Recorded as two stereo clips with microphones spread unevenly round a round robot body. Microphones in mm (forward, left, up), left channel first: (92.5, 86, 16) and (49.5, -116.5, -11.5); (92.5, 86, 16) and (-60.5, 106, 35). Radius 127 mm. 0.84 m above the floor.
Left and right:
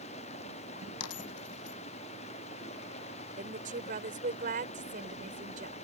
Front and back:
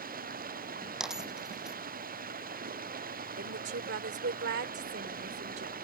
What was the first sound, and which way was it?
Running water, 145° left.